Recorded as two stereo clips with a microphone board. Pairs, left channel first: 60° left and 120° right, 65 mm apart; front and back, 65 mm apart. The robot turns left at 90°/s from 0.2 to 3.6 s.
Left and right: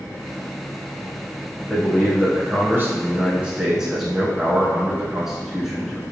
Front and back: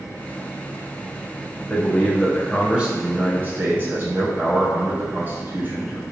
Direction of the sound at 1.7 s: 20° right.